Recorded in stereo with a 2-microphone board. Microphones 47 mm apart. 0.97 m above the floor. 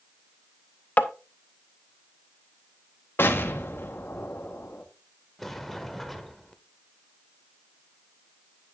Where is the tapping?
30° left (ahead or behind), 0.7 m.